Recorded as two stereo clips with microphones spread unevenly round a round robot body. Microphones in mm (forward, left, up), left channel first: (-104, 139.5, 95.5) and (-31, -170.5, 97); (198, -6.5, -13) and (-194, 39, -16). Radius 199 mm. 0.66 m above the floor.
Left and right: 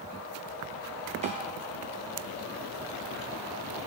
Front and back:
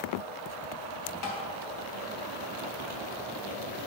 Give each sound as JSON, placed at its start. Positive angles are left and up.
{"t": 1.2, "sound": "tapping", "azimuth_deg": -5, "distance_m": 3.0}